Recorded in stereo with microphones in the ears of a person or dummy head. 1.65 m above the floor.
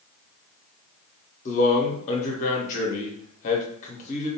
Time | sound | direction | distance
1.4 | a man speaking | 40° left (ahead or behind) | 0.9 m